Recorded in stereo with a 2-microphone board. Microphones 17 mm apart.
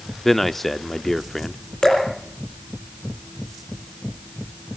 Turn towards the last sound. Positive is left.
turn(degrees=45)  # may be behind; listen again after turning